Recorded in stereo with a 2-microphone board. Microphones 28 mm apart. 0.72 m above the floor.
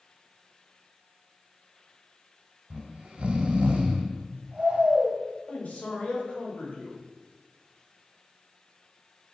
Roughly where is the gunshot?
I don't hear a gunshot.